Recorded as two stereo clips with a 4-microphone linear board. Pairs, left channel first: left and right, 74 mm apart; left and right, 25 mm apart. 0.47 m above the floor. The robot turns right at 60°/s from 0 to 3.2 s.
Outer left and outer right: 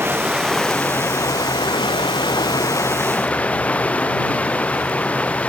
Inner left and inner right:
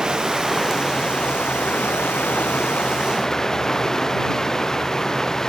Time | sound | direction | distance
0.0 | running water | 30° right | ?